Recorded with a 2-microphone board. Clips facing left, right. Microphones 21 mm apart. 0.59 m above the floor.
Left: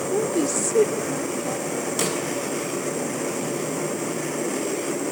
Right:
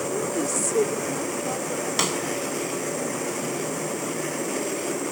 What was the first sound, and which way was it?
A woman speaking, 30° left (ahead or behind).